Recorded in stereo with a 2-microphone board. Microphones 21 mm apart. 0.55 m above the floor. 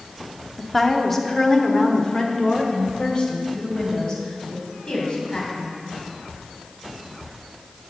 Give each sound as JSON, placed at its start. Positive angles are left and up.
{"t": 0.6, "sound": "a woman speaking", "side_deg": 5, "distance_m": 0.8}